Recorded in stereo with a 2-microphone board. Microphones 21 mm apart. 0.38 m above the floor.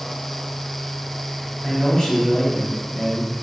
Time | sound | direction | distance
1.6 | a man speaking | 35° left (ahead or behind) | 2 m